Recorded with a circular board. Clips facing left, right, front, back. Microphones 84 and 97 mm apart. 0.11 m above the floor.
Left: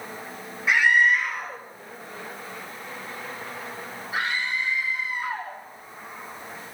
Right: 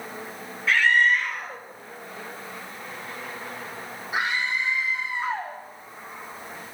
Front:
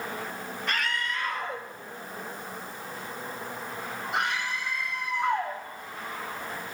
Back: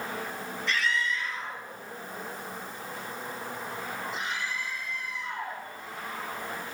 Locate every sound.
0.7 s a scream: 20° left, 2.5 m; by 5.6 s 25° right, 6 m